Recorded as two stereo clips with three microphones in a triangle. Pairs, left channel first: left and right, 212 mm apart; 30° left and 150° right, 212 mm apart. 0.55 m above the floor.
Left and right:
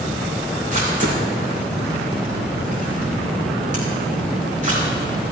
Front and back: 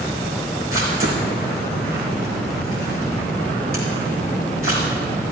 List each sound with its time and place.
0.7 s a camera shutter: 145° right, 5 m